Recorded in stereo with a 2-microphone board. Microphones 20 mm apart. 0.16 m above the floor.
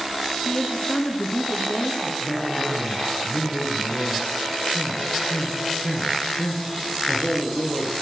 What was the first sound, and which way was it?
A woman speaking, 40° left (ahead or behind).